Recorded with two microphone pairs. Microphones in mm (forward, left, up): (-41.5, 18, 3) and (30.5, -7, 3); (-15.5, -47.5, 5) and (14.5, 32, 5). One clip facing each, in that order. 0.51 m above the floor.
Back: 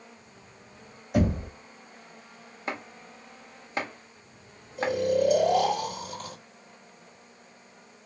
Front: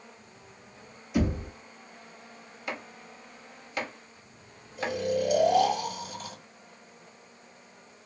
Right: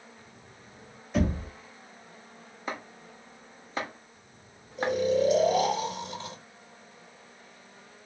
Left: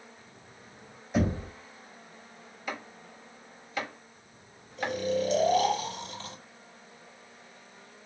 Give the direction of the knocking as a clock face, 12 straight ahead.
7 o'clock.